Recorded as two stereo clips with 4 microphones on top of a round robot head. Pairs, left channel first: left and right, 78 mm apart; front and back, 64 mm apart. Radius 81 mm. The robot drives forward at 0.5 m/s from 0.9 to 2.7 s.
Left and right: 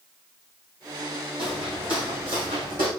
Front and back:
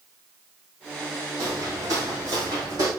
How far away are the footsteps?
About 3 m.